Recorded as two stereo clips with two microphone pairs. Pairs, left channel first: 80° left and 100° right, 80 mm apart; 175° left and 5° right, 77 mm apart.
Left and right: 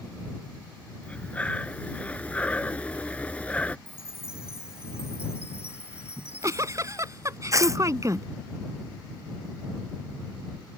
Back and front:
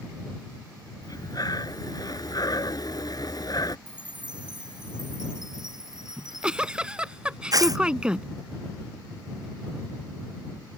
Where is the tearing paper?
45° right.